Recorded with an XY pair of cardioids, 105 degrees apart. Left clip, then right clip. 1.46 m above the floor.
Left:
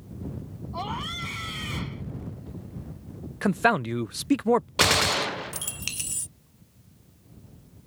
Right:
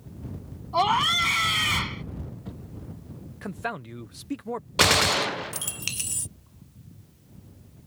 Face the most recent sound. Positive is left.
turn(degrees=-5)